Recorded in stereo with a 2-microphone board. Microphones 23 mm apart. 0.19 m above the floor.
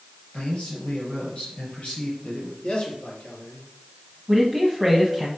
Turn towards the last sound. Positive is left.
turn(degrees=0)  # may be behind; listen again after turning